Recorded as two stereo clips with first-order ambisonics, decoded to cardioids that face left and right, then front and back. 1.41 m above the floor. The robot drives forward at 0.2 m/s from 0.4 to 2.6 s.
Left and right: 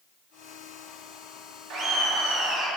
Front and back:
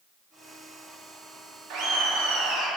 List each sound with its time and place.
1.7 s laughter: 140° right, 0.5 m; by 2.7 s 150° right, 0.6 m